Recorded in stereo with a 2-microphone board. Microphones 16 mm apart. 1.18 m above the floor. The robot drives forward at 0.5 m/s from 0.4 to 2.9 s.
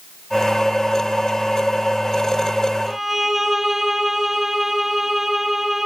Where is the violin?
25° right (ahead or behind), 1.3 m.